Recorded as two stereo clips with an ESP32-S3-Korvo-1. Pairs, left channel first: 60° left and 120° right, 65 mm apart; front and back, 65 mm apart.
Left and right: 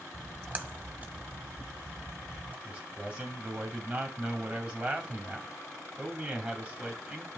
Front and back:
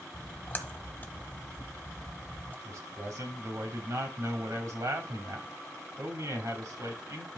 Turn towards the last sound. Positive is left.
turn(degrees=170)